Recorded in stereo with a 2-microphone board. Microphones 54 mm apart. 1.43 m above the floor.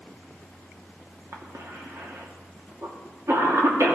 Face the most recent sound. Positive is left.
turn(degrees=-60)  # may be behind; listen again after turning